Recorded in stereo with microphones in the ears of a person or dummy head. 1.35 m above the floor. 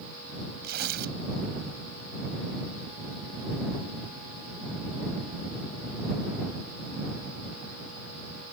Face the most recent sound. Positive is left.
turn(degrees=-55)  # may be behind; listen again after turning